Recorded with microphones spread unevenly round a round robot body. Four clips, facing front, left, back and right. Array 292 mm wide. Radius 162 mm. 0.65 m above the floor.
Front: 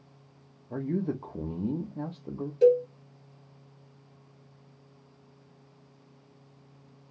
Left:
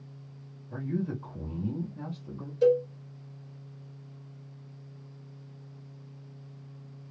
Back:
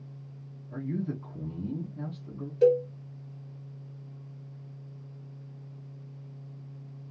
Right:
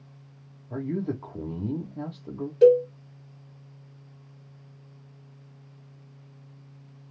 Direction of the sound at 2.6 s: 85° right.